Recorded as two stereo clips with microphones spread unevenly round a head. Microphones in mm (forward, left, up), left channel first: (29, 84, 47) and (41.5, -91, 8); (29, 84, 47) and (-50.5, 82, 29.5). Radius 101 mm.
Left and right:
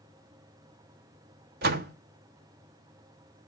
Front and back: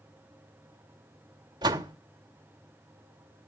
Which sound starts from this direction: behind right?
A door slam, at 1.6 s.